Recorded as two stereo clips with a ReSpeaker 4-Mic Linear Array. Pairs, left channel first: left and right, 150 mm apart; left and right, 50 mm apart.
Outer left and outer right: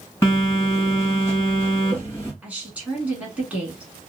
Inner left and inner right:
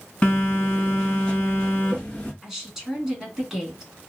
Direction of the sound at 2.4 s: 10° right (ahead or behind).